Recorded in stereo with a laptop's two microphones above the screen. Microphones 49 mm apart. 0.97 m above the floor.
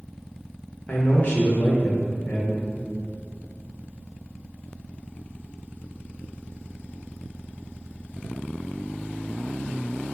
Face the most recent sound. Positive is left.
turn(degrees=35)  # may be behind; listen again after turning